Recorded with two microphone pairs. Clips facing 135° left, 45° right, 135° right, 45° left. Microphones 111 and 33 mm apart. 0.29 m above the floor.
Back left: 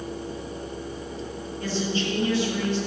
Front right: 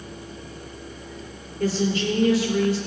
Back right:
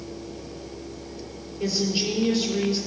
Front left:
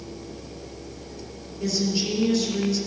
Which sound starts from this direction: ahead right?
A woman speaking, at 1.6 s.